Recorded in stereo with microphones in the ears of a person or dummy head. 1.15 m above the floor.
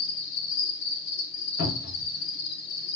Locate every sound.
0.0 s an insect: 60° left (ahead or behind), 1.9 m
1.6 s a cupboard door: 70° left (ahead or behind), 1.3 m